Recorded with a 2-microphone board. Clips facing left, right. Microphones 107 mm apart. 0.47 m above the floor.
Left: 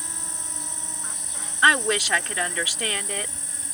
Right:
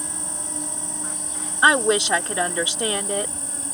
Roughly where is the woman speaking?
Right.